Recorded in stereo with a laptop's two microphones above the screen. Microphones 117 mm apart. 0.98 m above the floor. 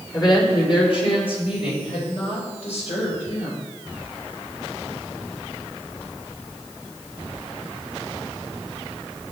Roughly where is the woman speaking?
Left.